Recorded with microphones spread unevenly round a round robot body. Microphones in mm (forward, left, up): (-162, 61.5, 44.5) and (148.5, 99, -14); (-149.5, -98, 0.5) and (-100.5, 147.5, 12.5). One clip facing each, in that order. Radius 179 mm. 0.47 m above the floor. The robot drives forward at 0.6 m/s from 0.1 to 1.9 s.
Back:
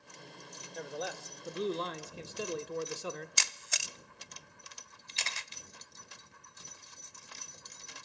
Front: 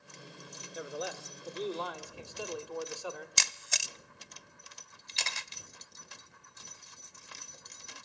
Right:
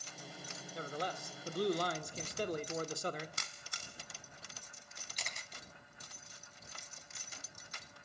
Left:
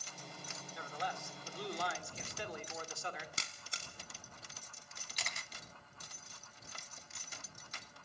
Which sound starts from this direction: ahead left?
A camera shutter, at 5.1 s.